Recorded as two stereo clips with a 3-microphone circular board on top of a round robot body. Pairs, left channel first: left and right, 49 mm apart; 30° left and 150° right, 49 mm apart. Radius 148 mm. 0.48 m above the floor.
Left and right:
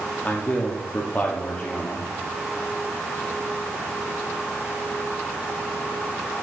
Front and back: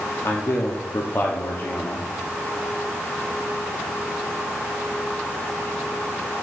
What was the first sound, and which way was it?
A man speaking, 40° left.